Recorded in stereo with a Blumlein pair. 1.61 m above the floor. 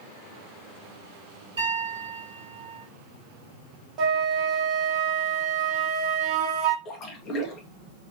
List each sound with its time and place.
1.6 s a piano: 60° right, 3.5 m
4.0 s a flute: 30° right, 1.6 m
6.8 s a splash: 30° left, 1.7 m